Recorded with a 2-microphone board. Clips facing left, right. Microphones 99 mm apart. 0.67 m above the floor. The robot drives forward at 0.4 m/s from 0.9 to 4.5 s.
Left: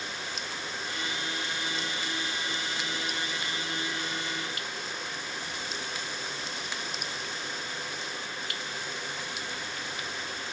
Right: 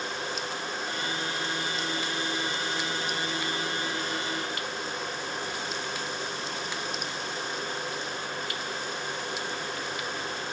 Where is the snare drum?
No snare drum in this recording.